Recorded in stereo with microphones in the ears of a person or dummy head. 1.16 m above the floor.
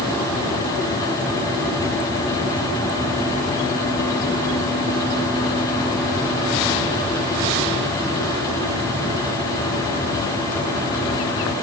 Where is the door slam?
I don't hear a door slam.